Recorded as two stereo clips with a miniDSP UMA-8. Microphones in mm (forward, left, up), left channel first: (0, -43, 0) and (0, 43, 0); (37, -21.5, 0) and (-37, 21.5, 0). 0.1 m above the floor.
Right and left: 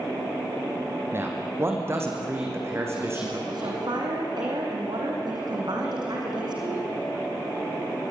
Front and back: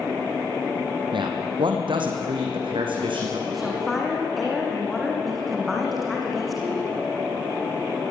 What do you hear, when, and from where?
1.1 s a man speaking: 150° left, 4.5 m
3.5 s a woman speaking: 60° left, 5.5 m